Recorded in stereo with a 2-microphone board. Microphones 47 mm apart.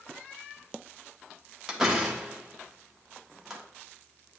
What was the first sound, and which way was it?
A door slam, 10° right (ahead or behind).